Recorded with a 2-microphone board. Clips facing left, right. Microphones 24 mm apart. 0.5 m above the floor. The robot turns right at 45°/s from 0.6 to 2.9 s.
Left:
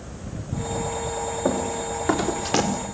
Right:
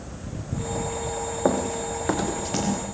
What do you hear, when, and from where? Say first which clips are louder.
1.4 s running footsteps: right 2 dB; 35° right (ahead or behind), 4 m; by 2.7 s 35° left (ahead or behind), 4 m